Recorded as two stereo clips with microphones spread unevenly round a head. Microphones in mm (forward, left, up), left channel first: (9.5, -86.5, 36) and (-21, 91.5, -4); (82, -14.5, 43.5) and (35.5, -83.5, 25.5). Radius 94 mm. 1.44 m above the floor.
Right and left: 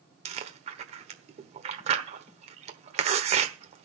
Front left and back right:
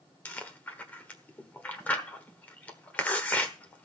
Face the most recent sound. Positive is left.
turn(degrees=60)